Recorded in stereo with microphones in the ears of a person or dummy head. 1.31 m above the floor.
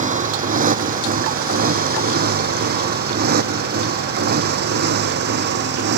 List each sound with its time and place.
0.0 s a motorcycle: 40° right (ahead or behind); by 6.0 s 60° right (ahead or behind)